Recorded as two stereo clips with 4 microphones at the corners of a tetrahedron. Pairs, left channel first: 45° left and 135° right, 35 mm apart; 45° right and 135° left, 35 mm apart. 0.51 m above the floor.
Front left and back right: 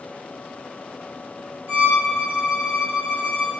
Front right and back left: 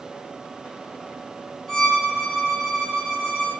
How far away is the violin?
About 1.7 m.